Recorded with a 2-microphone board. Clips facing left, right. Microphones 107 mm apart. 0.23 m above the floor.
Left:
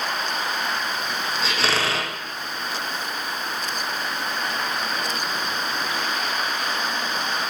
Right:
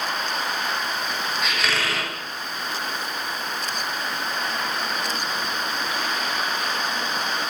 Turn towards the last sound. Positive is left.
turn(degrees=30)  # may be behind; listen again after turning